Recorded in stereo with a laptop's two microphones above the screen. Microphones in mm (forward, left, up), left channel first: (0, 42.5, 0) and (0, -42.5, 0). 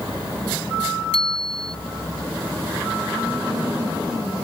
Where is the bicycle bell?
85° left.